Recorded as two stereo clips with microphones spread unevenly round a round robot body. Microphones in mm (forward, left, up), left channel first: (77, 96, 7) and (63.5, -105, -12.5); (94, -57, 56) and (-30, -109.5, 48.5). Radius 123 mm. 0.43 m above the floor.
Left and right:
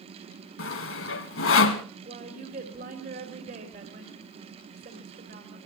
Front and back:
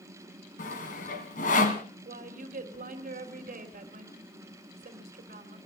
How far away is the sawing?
About 1.8 m.